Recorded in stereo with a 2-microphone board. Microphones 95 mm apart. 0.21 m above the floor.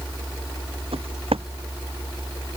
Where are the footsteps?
85° right.